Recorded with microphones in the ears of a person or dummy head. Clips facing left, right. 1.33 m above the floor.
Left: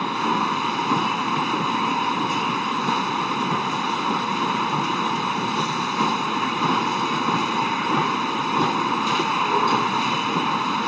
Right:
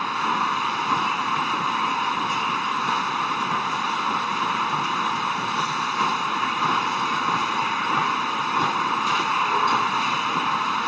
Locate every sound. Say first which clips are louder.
0.0 s a machine running: left 4 dB; 20° left (ahead or behind)